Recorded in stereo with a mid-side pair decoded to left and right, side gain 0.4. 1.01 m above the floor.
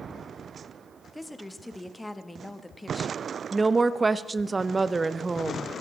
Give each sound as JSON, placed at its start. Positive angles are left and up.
{"t": 1.1, "sound": "a woman speaking", "azimuth_deg": 10, "distance_m": 1.0}
{"t": 3.5, "sound": "a woman speaking", "azimuth_deg": -30, "distance_m": 0.6}